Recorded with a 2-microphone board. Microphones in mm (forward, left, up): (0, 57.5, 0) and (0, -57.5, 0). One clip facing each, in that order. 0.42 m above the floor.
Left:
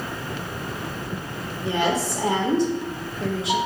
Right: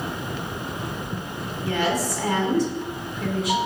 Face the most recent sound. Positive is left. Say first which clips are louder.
# left 1 dB
turn(degrees=25)  # may be behind; listen again after turning